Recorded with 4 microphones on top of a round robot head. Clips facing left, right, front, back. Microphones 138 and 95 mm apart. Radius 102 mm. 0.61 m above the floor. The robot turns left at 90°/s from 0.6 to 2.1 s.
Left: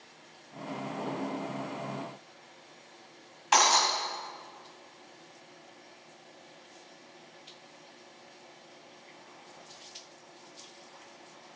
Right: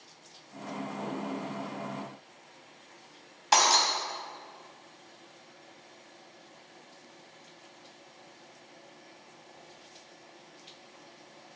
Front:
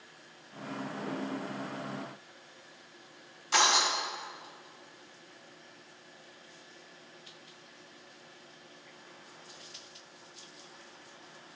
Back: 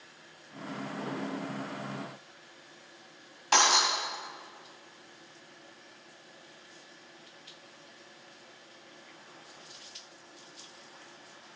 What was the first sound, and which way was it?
Breaking glass, 145° right.